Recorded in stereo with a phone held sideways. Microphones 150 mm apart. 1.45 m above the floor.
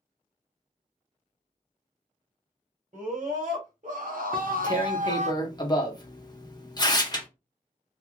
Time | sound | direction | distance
2.9 | a scream | 50° right (ahead or behind) | 1.3 m
4.3 | tearing paper | 30° left (ahead or behind) | 0.7 m